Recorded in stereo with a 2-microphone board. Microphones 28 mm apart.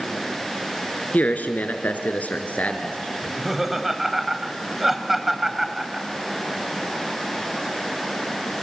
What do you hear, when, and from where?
1.1 s a man speaking: 75° left (ahead or behind), 3 m; by 3.0 s 50° left (ahead or behind), 3.5 m
3.2 s laughter: 10° right (ahead or behind), 1.8 m